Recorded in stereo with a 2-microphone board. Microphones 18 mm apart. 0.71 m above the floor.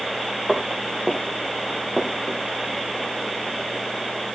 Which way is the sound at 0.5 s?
5° right (ahead or behind).